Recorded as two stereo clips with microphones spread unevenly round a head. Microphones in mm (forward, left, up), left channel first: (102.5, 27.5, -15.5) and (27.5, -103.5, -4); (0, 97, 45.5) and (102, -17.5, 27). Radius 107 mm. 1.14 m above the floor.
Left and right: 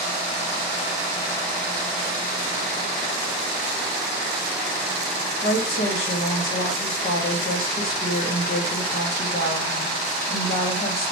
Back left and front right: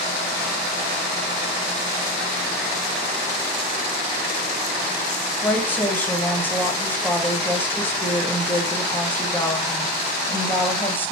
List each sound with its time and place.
5.4 s a woman speaking: 50° left, 0.9 m